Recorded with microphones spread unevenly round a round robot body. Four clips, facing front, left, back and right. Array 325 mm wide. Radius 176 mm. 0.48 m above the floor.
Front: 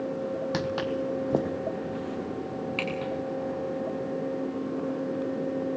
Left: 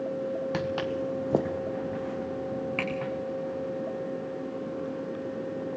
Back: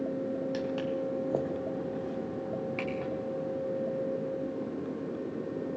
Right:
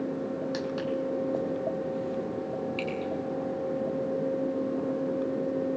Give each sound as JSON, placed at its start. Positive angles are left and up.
{"t": 0.5, "sound": "footsteps", "azimuth_deg": 45, "distance_m": 1.6}